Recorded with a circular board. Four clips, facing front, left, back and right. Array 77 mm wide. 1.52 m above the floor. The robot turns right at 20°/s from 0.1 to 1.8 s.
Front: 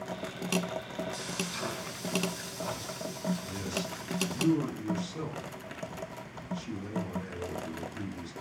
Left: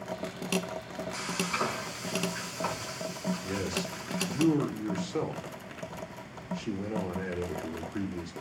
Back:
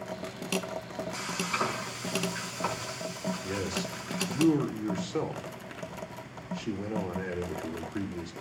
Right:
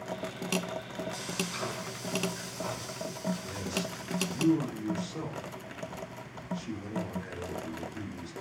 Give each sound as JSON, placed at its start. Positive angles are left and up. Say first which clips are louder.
{"t": 1.1, "sound": "frying", "louder": "left 4 dB, back 5 dB", "azimuth_deg": 140, "distance_m": 5.5}
{"t": 3.4, "sound": "a man speaking", "louder": "left 2 dB, back 3 dB", "azimuth_deg": 145, "distance_m": 5.5}